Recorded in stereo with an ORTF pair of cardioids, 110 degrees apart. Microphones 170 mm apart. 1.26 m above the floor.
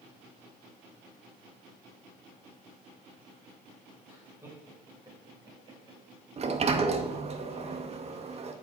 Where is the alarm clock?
I don't hear an alarm clock.